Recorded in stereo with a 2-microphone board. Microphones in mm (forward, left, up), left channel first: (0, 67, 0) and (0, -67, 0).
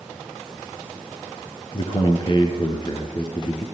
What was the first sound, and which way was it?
A man speaking, 35° left (ahead or behind).